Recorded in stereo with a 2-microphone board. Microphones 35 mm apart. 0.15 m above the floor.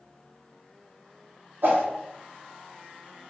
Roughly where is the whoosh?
Right.